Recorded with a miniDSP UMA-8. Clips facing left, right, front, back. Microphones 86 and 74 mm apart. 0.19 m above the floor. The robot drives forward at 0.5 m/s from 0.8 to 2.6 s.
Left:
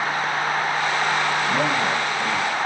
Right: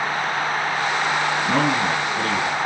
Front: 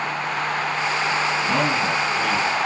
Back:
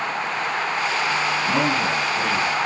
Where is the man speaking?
95° right, 2 m; by 2.5 s 115° right, 2 m.